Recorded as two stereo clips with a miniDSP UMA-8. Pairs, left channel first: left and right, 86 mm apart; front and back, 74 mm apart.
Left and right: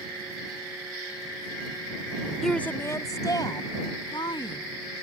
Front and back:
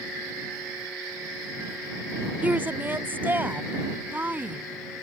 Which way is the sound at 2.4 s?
170° left.